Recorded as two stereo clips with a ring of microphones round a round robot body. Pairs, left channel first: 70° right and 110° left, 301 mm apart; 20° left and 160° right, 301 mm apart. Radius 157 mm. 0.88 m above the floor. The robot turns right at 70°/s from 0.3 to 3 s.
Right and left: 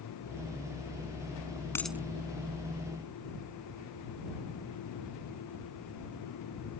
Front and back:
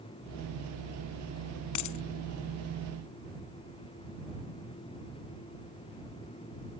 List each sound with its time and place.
1.8 s a dropped coin: 15° left; by 2.0 s 35° left